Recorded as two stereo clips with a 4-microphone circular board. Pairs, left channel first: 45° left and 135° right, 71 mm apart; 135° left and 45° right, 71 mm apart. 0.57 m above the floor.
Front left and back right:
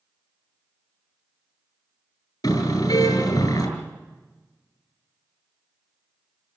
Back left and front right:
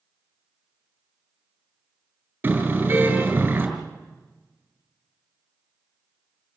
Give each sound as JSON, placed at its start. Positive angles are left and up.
{"t": 2.4, "sound": "a car horn", "azimuth_deg": 20, "distance_m": 3.5}